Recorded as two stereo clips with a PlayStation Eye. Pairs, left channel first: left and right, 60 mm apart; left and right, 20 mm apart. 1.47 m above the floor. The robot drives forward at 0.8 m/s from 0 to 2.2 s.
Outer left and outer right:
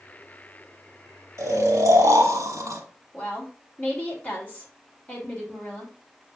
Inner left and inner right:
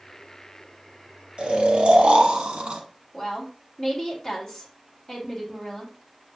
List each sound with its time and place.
1.4 s snoring: 65° right (ahead or behind), 1.4 m; by 2.8 s 70° right (ahead or behind), 1.4 m
3.1 s a woman speaking: 25° left (ahead or behind), 2 m